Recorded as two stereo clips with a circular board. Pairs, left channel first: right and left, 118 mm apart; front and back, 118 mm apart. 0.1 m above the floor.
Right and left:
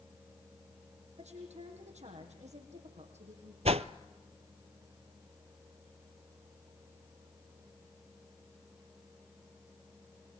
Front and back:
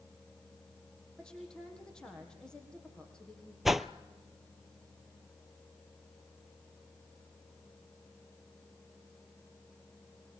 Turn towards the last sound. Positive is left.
turn(degrees=90)